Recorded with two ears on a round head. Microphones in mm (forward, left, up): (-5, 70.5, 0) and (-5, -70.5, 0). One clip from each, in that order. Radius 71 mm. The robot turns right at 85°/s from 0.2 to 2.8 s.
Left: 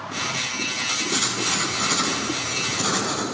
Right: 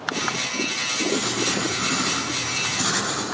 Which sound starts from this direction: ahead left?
Writing, at 1.1 s.